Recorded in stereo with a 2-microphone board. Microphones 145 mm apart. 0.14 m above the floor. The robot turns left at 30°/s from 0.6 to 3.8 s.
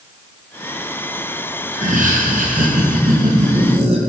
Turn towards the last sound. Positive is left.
turn(degrees=-130)